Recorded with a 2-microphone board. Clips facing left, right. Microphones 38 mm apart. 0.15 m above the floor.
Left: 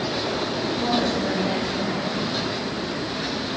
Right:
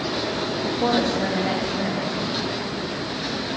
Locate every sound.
0.6 s a woman speaking: 85° right, 9.5 m